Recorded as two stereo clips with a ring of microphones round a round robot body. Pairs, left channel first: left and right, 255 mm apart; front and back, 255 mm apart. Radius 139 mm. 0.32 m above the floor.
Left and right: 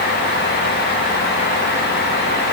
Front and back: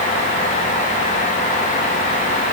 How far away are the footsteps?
I don't hear footsteps.